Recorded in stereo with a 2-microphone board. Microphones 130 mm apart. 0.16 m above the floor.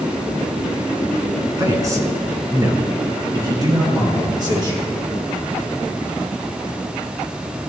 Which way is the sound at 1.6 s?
20° right (ahead or behind).